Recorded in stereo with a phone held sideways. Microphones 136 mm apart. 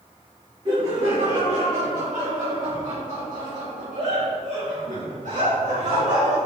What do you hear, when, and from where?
0.7 s laughter: 40° right (ahead or behind), 2.5 m; by 6.4 s 60° right (ahead or behind), 4.5 m